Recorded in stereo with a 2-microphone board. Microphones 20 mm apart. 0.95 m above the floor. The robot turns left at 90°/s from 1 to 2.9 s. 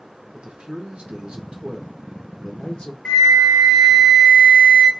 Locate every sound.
0.3 s a man speaking: 75° right, 0.7 m; by 3.0 s 115° left, 0.7 m
3.0 s a flute: 45° left (ahead or behind), 0.5 m